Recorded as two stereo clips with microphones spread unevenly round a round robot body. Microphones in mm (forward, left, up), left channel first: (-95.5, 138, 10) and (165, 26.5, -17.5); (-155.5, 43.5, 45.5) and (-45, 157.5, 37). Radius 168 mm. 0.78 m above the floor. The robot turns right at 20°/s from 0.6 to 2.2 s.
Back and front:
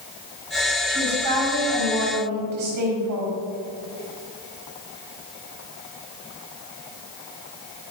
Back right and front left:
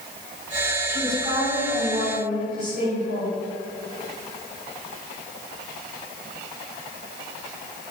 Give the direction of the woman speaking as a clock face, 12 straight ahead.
1 o'clock.